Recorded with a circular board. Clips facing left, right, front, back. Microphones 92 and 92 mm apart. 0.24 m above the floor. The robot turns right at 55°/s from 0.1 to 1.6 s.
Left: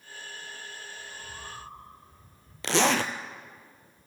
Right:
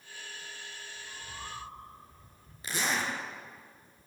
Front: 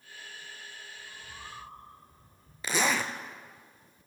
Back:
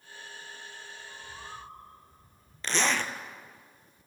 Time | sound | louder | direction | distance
1.0 | a bird | left 1 dB, back 2 dB | 65° right | 9.5 m
2.6 | a zipper | left 8 dB, even | 85° left | 1.1 m